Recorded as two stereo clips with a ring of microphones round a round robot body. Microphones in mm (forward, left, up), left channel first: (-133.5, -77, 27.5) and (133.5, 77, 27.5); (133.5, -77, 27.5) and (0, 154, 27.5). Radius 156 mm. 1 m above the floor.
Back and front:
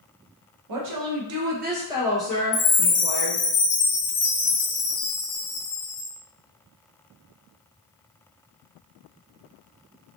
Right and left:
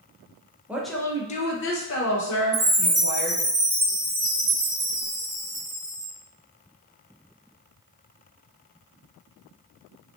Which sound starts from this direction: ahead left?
A woman speaking, at 0.7 s.